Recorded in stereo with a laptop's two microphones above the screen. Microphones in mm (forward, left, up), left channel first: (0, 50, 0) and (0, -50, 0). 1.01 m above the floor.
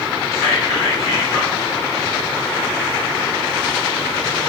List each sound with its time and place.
0.3 s whispering: 30° left (ahead or behind), 0.9 m